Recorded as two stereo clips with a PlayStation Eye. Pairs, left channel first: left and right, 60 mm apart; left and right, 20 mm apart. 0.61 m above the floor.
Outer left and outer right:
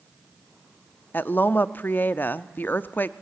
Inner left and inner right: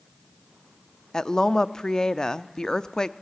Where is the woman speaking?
35° left (ahead or behind), 0.7 m.